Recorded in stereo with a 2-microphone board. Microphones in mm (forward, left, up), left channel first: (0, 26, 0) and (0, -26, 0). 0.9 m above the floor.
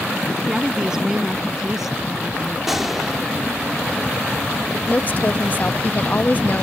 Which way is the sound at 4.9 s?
35° left (ahead or behind).